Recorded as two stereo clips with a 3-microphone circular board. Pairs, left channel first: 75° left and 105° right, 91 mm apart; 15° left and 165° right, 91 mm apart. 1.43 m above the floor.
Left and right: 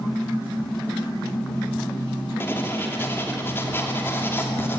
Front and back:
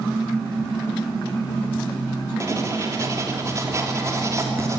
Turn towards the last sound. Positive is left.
turn(degrees=140)